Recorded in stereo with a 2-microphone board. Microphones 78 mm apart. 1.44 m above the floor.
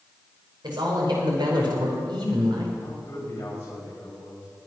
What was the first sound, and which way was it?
A man speaking, 75° right (ahead or behind).